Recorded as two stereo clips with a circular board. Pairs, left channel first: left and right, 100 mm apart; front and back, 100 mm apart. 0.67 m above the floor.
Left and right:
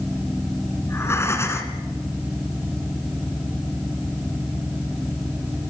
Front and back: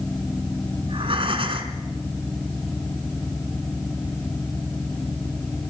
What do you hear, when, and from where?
0.8 s breathing: 155° left, 2 m